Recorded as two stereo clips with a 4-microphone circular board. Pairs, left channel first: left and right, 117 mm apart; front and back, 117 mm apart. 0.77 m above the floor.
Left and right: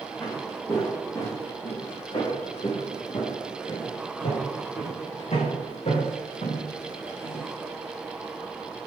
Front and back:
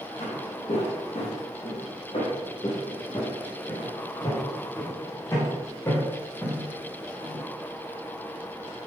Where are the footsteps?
20° left, 3.5 m; by 7.5 s 80° left, 4 m.